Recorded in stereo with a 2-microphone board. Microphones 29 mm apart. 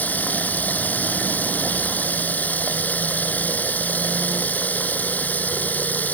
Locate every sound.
0.0 s running water: 80° left